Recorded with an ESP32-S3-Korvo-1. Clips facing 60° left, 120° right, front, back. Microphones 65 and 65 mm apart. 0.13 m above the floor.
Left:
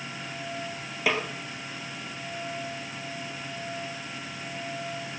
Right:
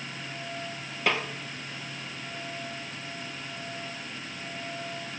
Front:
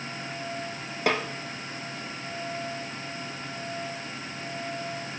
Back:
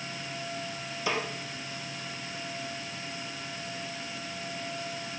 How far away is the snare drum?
About 2.5 m.